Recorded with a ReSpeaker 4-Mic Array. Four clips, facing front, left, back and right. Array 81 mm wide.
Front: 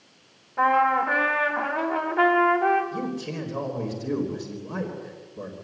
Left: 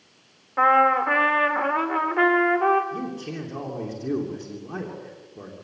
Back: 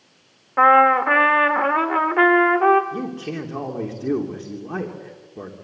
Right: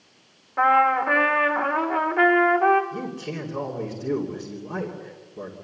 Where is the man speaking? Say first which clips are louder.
Even, back 2 dB; straight behind, 3 m.